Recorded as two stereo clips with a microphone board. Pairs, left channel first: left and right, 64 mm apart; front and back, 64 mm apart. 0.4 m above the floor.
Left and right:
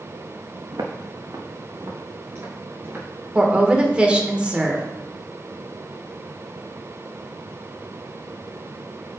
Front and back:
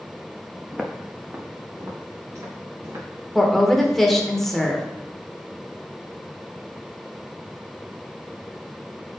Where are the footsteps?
90° right, 1.3 m; by 3.0 s 145° right, 2.5 m.